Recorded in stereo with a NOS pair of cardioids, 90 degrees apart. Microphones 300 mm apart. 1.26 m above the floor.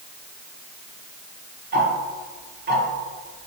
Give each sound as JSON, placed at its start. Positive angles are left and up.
{"t": 1.7, "sound": "ticking", "azimuth_deg": -30, "distance_m": 1.1}